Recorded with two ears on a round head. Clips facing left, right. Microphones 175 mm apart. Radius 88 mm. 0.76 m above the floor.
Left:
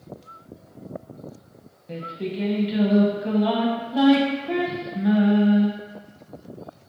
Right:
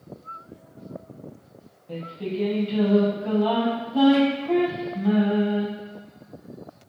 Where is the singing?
20° left (ahead or behind), 0.6 m.